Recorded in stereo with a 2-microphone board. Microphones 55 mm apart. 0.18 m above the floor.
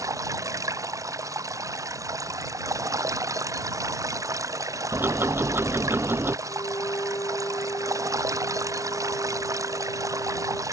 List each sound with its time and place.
0.0 s running water: 80° right
4.9 s ticking: 40° right (ahead or behind)
6.5 s a violin: 75° left (ahead or behind)